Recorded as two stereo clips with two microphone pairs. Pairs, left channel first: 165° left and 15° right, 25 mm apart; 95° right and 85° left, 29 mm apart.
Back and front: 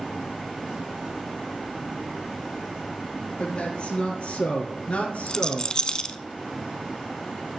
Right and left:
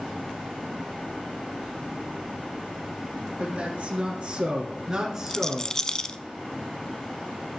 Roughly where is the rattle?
Behind right.